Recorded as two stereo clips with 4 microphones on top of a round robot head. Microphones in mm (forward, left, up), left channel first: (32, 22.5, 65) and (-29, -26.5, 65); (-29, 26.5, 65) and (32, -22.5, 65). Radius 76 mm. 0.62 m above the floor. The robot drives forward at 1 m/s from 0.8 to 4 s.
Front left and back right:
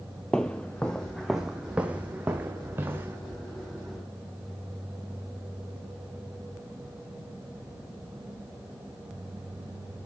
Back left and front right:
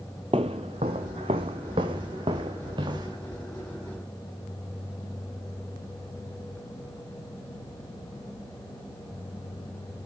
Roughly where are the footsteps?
Ahead right.